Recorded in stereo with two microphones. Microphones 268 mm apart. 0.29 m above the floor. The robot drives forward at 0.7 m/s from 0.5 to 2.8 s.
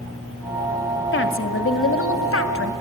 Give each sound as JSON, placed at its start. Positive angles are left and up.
{"t": 1.1, "sound": "a woman speaking", "side_deg": 45, "distance_m": 1.5}